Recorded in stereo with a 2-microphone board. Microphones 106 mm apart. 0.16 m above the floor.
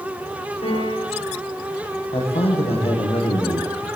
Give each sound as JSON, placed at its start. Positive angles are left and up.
{"t": 0.6, "sound": "a piano", "side_deg": 65, "distance_m": 10.0}
{"t": 2.1, "sound": "a man speaking", "side_deg": 65, "distance_m": 9.0}